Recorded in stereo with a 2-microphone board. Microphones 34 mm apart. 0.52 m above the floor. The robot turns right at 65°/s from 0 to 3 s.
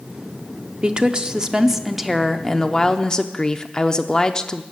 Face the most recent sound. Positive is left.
turn(degrees=25)  # may be behind; listen again after turning